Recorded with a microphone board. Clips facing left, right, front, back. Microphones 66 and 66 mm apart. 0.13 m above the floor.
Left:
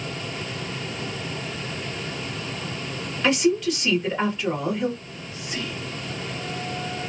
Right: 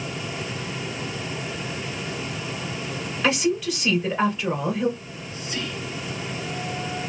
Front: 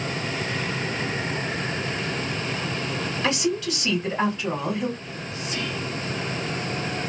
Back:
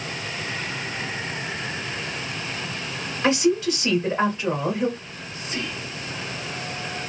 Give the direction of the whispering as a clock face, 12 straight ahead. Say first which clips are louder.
Right 1 dB, front 3 dB; 7 o'clock.